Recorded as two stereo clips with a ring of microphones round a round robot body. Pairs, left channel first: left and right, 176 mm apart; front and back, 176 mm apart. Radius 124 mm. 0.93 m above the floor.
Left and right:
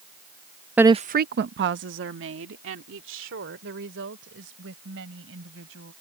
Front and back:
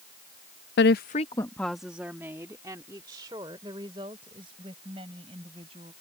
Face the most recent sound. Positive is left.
turn(degrees=-110)